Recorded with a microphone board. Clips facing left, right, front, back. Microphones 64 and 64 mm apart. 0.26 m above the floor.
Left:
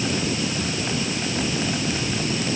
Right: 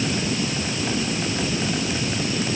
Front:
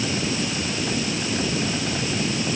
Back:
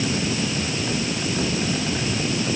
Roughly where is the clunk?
No clunk in this recording.